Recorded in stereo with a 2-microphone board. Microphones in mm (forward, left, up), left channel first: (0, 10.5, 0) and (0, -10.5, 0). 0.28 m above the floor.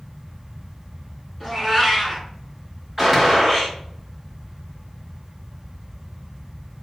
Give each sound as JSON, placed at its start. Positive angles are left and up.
{"t": 1.4, "sound": "a cat meowing", "side_deg": 5, "distance_m": 1.6}
{"t": 3.0, "sound": "a gunshot", "side_deg": -5, "distance_m": 1.4}